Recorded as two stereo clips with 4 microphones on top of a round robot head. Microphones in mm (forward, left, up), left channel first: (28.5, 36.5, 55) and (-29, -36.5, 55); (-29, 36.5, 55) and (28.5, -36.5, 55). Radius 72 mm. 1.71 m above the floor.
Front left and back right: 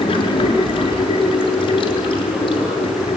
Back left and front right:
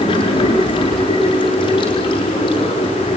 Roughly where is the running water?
Left.